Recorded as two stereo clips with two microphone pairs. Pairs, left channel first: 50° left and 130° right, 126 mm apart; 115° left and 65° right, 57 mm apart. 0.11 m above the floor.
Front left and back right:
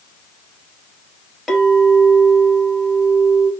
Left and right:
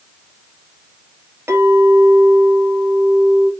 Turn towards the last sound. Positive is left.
turn(degrees=-40)